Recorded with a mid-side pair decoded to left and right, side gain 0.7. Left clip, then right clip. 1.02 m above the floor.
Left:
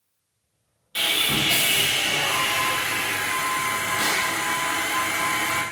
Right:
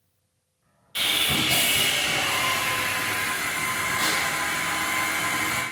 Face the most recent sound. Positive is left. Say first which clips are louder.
# left 1 dB
turn(degrees=10)